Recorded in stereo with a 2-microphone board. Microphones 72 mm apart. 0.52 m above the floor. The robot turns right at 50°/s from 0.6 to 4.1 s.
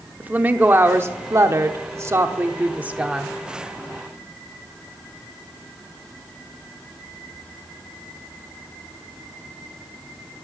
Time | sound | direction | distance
0.2 | a woman speaking | 145° right | 1.0 m